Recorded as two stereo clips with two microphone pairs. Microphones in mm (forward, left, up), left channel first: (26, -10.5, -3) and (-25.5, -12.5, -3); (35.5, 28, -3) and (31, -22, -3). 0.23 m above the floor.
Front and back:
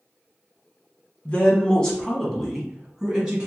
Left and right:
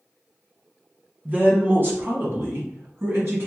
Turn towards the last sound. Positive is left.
turn(degrees=-105)